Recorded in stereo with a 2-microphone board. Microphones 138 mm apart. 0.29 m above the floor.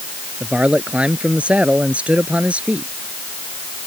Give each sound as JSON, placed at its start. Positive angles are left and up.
{"t": 0.4, "sound": "a man speaking", "side_deg": -10}